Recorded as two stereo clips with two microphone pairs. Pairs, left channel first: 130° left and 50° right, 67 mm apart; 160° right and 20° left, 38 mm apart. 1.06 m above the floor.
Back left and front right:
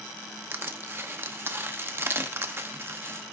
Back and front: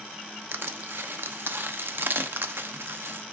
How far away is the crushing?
About 0.9 m.